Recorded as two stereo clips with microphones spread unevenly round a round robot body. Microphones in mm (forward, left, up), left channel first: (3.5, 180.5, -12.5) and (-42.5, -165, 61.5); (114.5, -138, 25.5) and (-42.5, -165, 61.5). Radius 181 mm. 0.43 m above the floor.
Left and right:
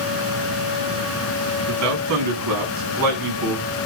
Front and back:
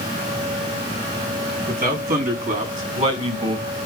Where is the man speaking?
145° right, 5.5 m; by 3.7 s 120° right, 5 m.